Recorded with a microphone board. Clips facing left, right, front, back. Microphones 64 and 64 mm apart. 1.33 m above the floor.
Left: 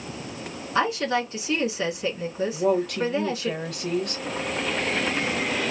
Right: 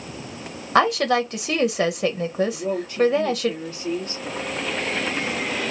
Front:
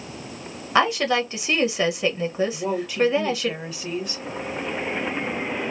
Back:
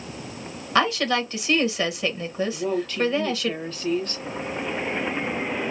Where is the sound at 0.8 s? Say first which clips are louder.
Right 5 dB, front 2 dB; 75° right, 0.8 m.